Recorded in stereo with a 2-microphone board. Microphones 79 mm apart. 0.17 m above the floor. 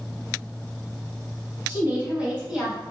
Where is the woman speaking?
25° right (ahead or behind), 1.9 m; by 2.8 s 5° right (ahead or behind), 2 m.